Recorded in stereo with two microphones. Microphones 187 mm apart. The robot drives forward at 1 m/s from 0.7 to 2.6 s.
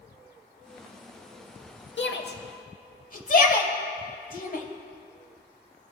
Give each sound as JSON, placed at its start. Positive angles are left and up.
{"t": 2.0, "sound": "a shout", "side_deg": 85, "distance_m": 0.8}